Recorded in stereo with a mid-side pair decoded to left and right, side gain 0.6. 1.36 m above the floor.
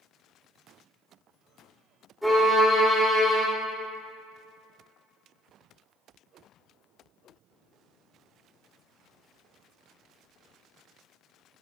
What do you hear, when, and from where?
2.2 s a violin: 5° right, 2.5 m